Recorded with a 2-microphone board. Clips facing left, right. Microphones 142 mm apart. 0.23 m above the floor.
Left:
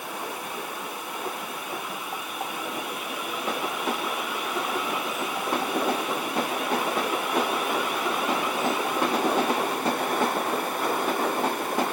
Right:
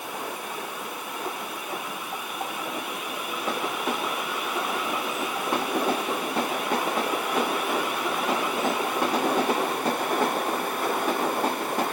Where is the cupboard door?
I don't hear a cupboard door.